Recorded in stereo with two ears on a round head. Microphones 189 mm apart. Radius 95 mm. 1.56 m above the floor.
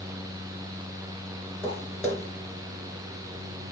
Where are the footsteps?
10° left (ahead or behind), 3.5 m.